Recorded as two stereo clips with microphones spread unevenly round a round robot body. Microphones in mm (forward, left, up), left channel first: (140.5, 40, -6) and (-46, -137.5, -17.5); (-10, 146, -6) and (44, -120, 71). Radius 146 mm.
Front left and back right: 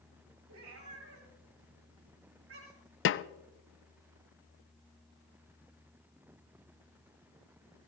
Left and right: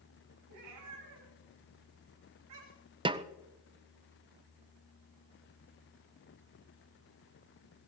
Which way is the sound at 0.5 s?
105° right.